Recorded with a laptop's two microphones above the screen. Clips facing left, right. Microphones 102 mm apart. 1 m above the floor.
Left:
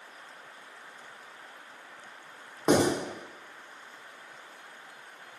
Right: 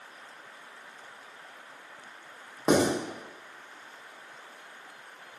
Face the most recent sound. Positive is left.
turn(degrees=-5)  # may be behind; listen again after turning